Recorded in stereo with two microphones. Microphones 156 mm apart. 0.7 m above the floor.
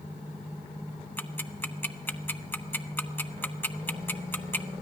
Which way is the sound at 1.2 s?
10° left (ahead or behind).